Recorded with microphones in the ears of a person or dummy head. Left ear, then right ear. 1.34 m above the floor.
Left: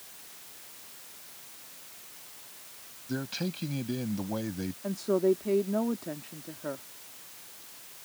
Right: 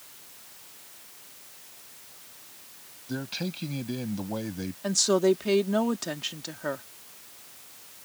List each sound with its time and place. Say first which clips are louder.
3.1 s a man speaking: right 1 dB; 15° right (ahead or behind)
4.8 s a woman speaking: right 4 dB; 65° right (ahead or behind)